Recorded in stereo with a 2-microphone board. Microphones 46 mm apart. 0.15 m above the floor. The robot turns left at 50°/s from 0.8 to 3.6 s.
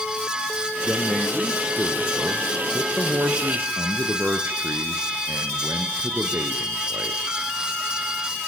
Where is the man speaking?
35° left, 2.5 m; by 7.4 s 100° right, 2.5 m.